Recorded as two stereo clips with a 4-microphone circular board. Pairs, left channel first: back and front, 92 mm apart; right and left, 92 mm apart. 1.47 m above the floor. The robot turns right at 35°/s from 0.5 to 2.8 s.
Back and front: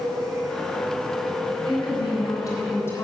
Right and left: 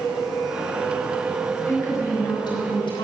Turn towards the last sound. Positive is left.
turn(degrees=-120)